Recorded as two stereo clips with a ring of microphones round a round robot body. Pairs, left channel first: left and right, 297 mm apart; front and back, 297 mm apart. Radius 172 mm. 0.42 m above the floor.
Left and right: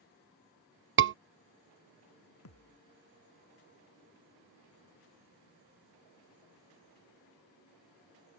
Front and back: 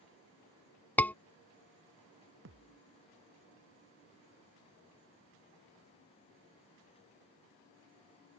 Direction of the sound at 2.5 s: 130° left.